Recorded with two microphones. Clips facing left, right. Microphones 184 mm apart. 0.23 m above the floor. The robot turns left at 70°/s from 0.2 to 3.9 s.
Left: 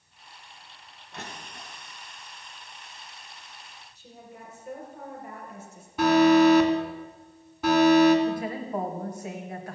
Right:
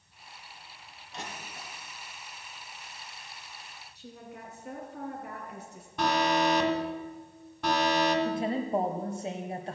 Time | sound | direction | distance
1.1 | crushing | 60° left (ahead or behind) | 2.5 m
4.0 | a woman speaking | 65° right (ahead or behind) | 3.5 m
6.0 | an alarm | 5° left (ahead or behind) | 2.5 m
8.2 | a woman speaking | 25° right (ahead or behind) | 1.0 m